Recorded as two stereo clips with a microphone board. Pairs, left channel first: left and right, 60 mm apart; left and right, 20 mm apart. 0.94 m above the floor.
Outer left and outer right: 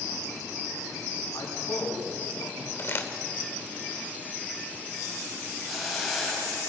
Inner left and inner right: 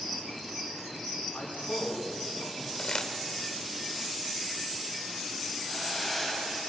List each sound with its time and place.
1.3 s a man speaking: 70° left (ahead or behind), 9 m
2.8 s crumpling: 40° left (ahead or behind), 2.5 m
5.7 s a hiss: centre (ahead or behind), 7 m